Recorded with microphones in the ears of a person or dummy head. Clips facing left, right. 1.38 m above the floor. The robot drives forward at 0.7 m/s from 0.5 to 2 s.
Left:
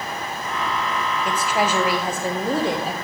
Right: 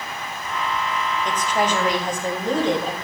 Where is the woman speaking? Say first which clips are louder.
Even; 10° left (ahead or behind), 0.8 m; by 3.0 s 5° left (ahead or behind), 1.3 m.